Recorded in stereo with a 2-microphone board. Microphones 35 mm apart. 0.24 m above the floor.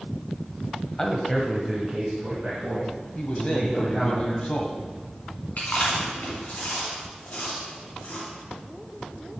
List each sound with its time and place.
1.0 s a man speaking: 15° left (ahead or behind), 1.0 m; by 4.2 s 20° right (ahead or behind), 4.5 m
3.1 s a man speaking: 35° left (ahead or behind), 1.2 m
5.6 s chewing: 55° left (ahead or behind), 2.5 m